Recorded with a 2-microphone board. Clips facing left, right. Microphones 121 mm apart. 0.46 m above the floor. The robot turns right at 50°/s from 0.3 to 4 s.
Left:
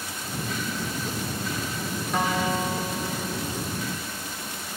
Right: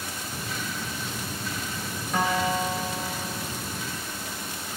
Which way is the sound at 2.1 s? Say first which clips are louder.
Right 1 dB; straight behind.